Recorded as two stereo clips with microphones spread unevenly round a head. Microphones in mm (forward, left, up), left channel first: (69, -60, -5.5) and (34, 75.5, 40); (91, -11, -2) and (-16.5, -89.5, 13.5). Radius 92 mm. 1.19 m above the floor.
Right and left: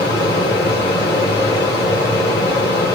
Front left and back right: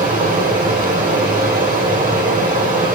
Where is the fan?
160° right, 1.4 m.